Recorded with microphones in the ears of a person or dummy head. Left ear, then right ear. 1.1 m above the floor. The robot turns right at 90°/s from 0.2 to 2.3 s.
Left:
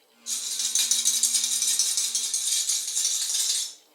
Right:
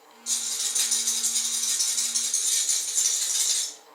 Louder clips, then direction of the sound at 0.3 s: Even; 10° right.